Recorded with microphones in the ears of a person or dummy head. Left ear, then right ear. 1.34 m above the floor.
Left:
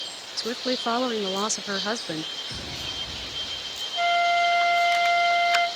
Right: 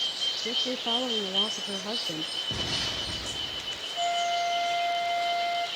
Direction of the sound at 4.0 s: 50° left (ahead or behind).